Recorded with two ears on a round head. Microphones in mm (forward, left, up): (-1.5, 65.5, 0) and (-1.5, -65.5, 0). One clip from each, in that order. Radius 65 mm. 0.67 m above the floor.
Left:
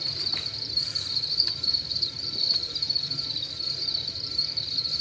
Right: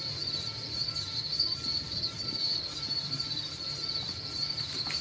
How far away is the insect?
About 1.2 m.